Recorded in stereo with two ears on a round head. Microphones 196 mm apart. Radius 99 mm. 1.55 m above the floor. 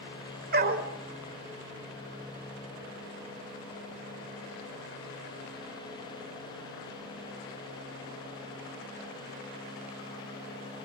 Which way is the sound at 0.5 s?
45° right (ahead or behind).